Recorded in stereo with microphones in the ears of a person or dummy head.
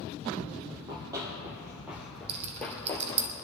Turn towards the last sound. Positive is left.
turn(degrees=-35)  # may be behind; listen again after turning